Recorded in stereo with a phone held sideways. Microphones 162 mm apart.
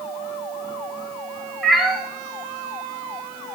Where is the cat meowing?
Centre (ahead or behind), 1.4 m.